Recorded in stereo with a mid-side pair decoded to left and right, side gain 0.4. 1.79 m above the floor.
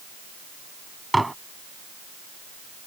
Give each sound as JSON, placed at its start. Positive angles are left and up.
{"t": 1.1, "sound": "dishes clattering", "azimuth_deg": -10}